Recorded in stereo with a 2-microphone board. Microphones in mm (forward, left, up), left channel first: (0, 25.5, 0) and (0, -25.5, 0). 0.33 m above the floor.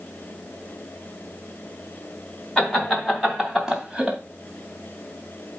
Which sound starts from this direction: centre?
Laughter, at 2.6 s.